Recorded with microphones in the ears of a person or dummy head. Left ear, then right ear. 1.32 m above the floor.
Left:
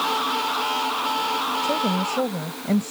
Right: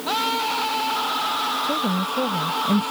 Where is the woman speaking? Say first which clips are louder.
Even; 25° left (ahead or behind).